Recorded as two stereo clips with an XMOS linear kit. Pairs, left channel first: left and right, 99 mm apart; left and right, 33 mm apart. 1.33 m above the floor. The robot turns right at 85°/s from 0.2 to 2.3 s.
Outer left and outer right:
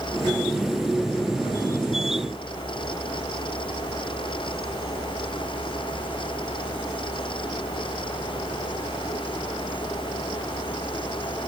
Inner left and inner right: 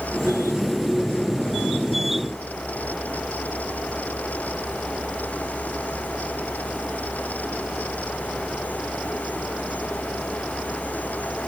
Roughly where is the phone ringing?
No phone ringing in this recording.